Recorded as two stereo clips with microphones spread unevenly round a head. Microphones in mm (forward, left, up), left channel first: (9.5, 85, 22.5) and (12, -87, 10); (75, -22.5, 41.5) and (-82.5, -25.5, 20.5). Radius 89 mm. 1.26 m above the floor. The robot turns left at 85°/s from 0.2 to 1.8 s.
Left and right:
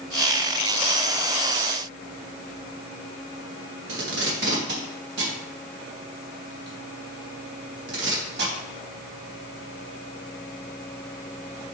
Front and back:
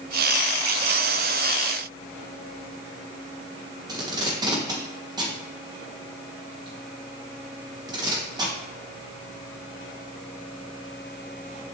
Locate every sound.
3.9 s tape being pulled: 115° right, 2.5 m